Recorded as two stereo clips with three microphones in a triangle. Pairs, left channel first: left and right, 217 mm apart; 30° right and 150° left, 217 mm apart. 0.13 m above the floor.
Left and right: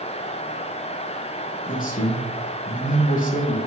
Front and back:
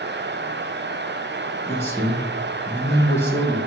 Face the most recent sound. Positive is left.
turn(degrees=45)